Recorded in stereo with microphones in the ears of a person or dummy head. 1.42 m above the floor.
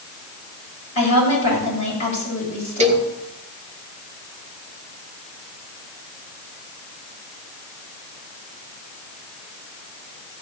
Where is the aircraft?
I don't hear an aircraft.